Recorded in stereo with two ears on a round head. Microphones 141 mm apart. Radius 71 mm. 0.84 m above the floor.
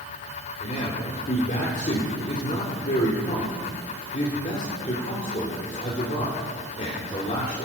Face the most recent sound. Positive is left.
turn(degrees=45)  # may be behind; listen again after turning